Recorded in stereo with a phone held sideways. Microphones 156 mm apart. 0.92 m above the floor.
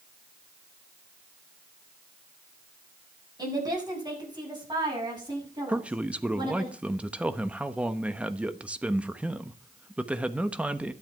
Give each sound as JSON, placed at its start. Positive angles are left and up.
{"t": 3.4, "sound": "a woman speaking", "side_deg": -25, "distance_m": 7.0}
{"t": 5.7, "sound": "a man speaking", "side_deg": -10, "distance_m": 1.0}